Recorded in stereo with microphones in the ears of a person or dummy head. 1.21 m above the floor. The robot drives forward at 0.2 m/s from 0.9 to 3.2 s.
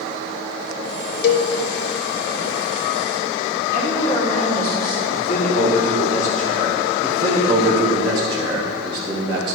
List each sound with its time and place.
1.2 s a cowbell: 65° left (ahead or behind), 0.8 m; by 1.5 s 70° left (ahead or behind), 0.8 m
3.7 s a woman speaking: 15° left (ahead or behind), 2.5 m
5.1 s a man speaking: 50° left (ahead or behind), 3 m
7.0 s a man speaking: 20° right (ahead or behind), 1.1 m